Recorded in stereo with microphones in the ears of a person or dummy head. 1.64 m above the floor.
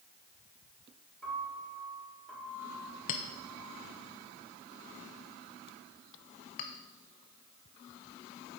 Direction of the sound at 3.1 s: 35° left (ahead or behind).